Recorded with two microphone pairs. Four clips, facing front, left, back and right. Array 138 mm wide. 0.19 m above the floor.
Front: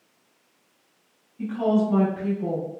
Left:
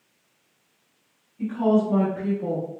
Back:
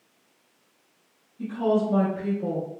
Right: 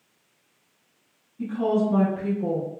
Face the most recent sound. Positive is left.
turn(degrees=75)